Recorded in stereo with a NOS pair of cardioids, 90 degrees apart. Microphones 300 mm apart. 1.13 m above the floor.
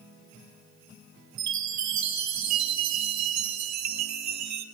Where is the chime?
65° right, 1.5 m.